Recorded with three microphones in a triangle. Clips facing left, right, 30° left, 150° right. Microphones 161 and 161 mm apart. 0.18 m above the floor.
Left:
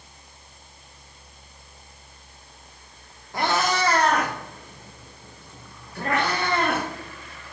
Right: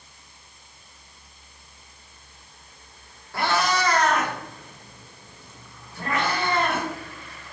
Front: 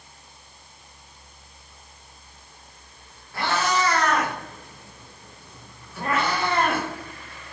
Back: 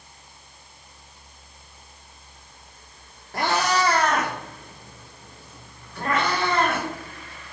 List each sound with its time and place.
3.3 s a cat meowing: 165° left, 2 m; by 6.9 s 105° left, 3 m